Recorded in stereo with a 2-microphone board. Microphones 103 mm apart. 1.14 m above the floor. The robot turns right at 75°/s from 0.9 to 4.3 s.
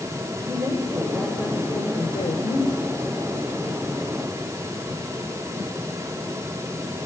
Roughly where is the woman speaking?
Ahead right.